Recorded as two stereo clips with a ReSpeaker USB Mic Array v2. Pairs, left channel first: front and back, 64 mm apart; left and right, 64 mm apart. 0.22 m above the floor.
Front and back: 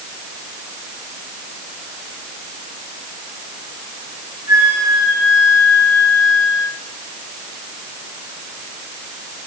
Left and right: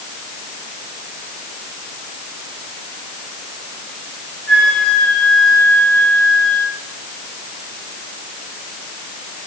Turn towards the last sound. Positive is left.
turn(degrees=175)